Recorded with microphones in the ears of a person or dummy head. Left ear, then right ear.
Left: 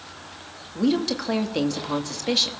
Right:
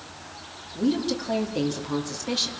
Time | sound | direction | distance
0.8 | a woman speaking | 50° left (ahead or behind) | 2.5 m